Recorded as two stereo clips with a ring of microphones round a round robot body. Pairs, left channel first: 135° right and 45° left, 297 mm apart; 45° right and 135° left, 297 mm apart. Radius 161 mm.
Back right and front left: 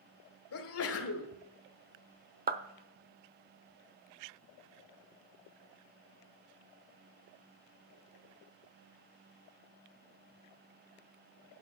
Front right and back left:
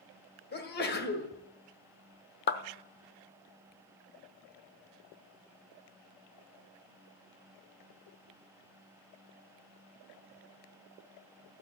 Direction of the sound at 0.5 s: 100° right.